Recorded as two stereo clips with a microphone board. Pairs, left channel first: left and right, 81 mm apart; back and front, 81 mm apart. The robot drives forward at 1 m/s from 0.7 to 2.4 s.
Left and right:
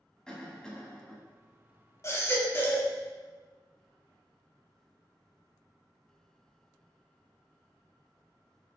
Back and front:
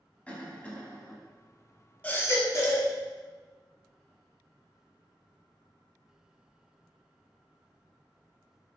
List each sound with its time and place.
0.3 s a cough: 150° left, 1.1 m; by 1.2 s 165° left, 1.3 m
2.0 s a baby crying: 115° left, 0.7 m; by 2.9 s 145° left, 0.9 m